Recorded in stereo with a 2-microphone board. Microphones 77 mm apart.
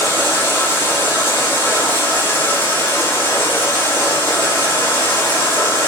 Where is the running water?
30° left (ahead or behind), 1.0 m.